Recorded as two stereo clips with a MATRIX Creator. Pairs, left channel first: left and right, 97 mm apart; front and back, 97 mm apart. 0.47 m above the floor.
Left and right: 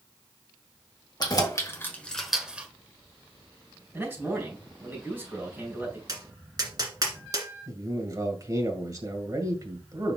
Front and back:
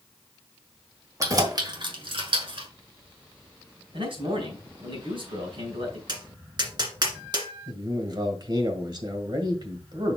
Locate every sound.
1.2 s keys jangling: 130° left, 1.6 m; by 2.7 s 160° right, 1.4 m
3.9 s a man speaking: 160° right, 4.5 m
6.1 s tapping: 140° right, 1.7 m
7.7 s a man speaking: 140° right, 1.9 m